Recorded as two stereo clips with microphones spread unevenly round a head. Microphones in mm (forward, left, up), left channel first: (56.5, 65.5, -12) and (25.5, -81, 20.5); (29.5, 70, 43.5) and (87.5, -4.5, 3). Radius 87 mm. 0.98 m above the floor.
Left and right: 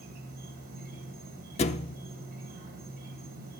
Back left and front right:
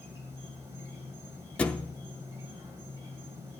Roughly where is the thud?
Behind left.